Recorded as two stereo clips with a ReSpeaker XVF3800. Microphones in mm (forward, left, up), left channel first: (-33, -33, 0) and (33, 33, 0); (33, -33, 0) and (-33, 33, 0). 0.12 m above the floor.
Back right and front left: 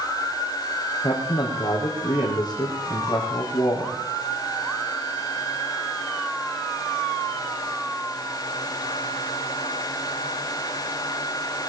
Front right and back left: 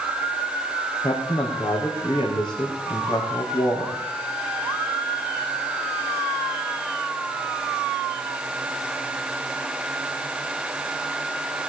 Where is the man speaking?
85° right, 4.5 m.